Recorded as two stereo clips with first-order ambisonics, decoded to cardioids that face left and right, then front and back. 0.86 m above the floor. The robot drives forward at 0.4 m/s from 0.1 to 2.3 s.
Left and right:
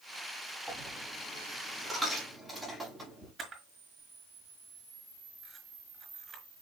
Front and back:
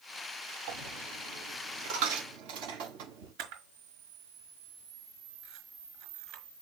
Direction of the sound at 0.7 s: 175° left.